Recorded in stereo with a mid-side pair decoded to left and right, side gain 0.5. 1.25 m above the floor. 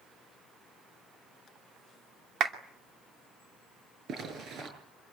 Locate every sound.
2.4 s a clap: 60° right, 2.5 m
4.1 s a zipper: 60° right, 8 m